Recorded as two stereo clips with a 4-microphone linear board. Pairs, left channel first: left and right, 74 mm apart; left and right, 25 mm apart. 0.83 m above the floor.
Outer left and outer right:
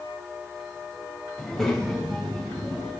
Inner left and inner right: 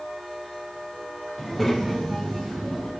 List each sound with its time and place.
1.4 s a child speaking: 5° left (ahead or behind), 3.5 m; by 2.9 s centre (ahead or behind), 5.5 m